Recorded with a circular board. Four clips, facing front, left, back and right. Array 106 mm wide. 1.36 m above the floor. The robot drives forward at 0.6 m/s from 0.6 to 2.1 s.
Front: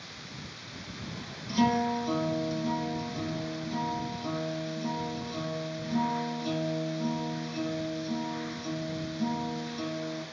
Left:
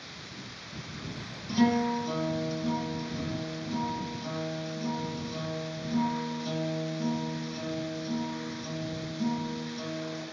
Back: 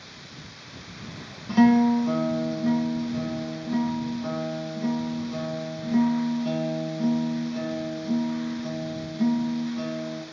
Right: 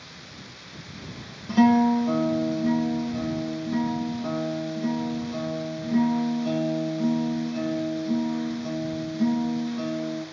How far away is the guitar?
About 1.0 m.